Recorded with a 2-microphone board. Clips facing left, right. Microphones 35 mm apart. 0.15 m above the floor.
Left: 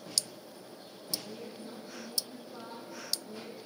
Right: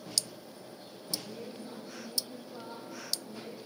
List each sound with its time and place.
1.2 s a woman speaking: 55° left (ahead or behind), 7 m